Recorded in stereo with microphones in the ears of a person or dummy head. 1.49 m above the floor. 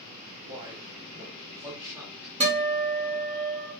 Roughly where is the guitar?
Right.